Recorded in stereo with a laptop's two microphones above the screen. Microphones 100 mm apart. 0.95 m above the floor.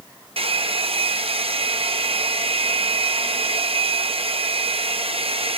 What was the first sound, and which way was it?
A hair dryer, 75° right (ahead or behind).